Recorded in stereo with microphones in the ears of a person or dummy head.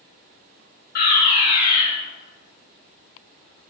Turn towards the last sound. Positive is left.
turn(degrees=55)  # may be behind; listen again after turning